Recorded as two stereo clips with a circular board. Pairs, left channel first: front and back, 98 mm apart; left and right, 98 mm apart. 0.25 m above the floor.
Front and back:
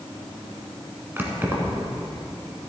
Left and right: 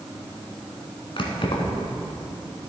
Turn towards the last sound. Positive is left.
turn(degrees=110)